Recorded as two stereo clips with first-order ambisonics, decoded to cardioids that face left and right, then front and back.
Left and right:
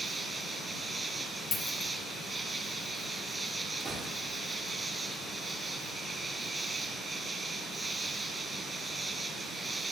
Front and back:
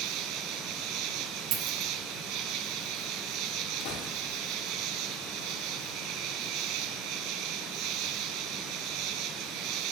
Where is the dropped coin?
155° left, 2 m.